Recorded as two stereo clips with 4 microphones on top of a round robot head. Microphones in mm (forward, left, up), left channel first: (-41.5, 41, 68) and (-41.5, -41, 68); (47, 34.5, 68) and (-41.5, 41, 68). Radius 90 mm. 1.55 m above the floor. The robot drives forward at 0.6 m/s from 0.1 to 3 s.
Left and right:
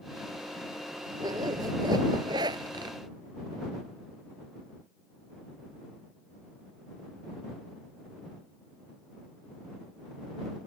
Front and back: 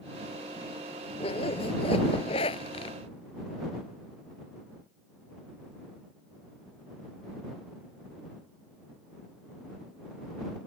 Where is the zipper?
35° right; by 3.0 s 40° right.